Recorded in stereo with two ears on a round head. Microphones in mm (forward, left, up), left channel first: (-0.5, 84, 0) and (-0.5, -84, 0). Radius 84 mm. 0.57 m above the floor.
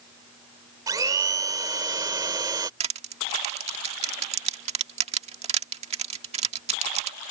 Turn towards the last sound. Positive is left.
turn(degrees=-35)  # may be behind; listen again after turning